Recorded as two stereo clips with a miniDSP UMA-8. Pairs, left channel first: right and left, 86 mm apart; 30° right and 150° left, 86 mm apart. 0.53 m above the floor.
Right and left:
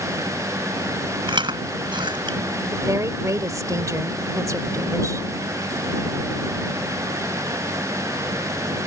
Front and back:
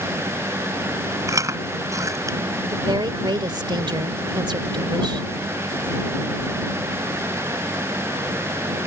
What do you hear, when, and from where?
1.3 s chewing: 100° left
2.7 s a woman speaking: 135° left